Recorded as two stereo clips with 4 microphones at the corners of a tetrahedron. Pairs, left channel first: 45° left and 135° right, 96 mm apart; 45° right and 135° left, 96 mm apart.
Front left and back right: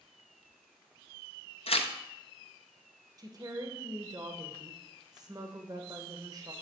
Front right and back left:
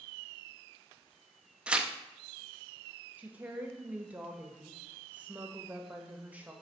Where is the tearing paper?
55° left, 0.5 m.